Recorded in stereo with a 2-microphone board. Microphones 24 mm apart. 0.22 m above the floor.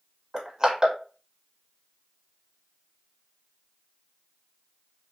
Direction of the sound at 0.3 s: 25° right (ahead or behind).